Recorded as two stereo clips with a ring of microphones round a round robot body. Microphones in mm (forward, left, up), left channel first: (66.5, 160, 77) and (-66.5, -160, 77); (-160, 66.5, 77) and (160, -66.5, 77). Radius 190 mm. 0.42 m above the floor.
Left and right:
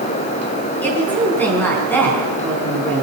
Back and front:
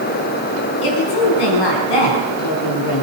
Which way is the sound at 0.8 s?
155° left.